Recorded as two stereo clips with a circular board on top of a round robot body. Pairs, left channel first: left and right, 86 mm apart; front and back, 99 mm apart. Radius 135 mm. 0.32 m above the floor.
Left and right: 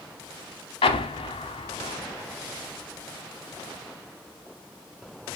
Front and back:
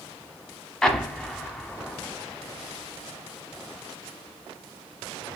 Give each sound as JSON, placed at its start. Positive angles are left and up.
{"t": 0.8, "sound": "an explosion", "azimuth_deg": 85, "distance_m": 0.7}